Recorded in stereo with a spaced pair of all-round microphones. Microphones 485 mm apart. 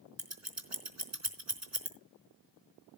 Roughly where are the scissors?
Right.